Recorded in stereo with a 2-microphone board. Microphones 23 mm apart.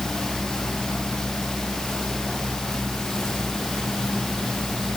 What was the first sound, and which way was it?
Only background noise.